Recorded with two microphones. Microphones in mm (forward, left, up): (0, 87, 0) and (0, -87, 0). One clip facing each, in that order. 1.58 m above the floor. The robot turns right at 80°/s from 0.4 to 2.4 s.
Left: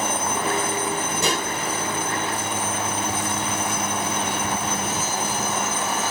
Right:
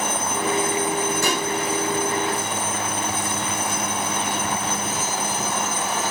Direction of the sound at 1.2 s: 20° left (ahead or behind).